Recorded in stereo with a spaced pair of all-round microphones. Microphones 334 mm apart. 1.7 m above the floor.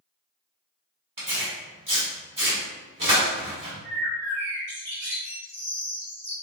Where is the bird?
35° right (ahead or behind), 1.5 m.